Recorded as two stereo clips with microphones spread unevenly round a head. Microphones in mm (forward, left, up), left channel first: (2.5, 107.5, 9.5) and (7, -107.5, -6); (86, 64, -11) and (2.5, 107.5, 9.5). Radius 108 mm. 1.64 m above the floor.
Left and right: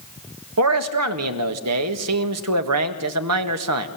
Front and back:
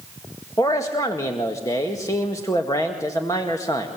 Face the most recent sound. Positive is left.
turn(degrees=-105)